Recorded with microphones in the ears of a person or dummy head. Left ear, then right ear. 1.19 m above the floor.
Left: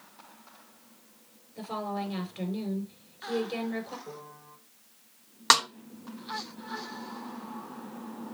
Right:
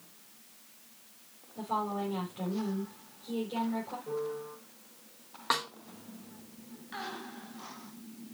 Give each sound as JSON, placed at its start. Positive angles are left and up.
{"t": 1.6, "sound": "a woman speaking", "side_deg": 60, "distance_m": 4.5}
{"t": 4.1, "sound": "a piano", "side_deg": 15, "distance_m": 5.0}
{"t": 5.5, "sound": "a snare drum", "side_deg": 80, "distance_m": 0.9}